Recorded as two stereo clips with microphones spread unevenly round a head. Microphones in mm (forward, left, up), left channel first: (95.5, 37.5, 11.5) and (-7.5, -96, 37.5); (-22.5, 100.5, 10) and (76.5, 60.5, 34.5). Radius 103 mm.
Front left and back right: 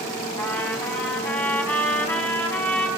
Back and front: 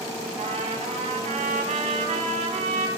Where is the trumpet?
25° right, 3 m.